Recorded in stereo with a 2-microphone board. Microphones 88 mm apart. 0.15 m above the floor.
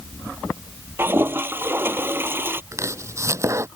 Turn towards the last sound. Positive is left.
turn(degrees=-35)  # may be behind; listen again after turning